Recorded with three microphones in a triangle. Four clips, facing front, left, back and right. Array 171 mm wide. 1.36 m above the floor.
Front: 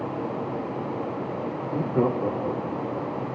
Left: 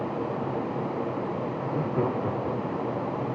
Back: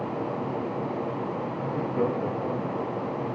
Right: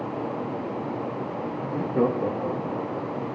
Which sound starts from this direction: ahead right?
Laughter, at 1.6 s.